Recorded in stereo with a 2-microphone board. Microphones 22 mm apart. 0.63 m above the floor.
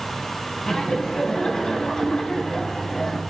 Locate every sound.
0.7 s laughter: 30° left (ahead or behind), 6.5 m